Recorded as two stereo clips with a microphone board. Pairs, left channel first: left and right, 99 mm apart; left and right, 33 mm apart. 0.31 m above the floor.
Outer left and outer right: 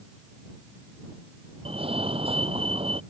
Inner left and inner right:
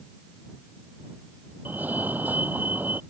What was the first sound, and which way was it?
A fire alarm, 70° right (ahead or behind).